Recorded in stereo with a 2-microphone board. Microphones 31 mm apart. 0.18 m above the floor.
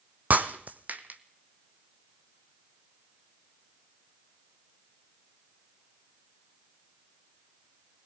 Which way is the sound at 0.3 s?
60° right (ahead or behind).